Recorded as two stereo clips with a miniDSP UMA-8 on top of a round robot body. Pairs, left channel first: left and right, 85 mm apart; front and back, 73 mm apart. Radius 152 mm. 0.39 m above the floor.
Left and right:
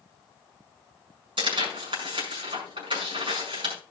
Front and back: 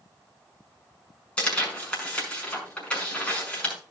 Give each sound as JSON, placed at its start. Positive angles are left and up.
{"t": 1.4, "sound": "tearing paper", "azimuth_deg": -75, "distance_m": 6.0}